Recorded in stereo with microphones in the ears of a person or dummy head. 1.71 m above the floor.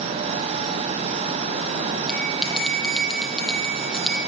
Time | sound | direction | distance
2.1 | a bell | centre (ahead or behind) | 8 m